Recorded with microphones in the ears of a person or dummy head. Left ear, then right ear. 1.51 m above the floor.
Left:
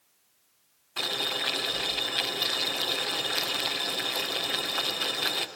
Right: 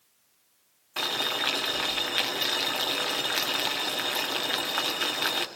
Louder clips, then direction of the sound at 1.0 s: Right 1 dB; 20° right (ahead or behind).